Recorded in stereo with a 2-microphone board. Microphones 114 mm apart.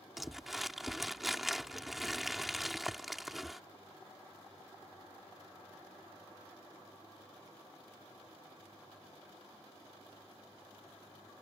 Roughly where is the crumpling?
Centre.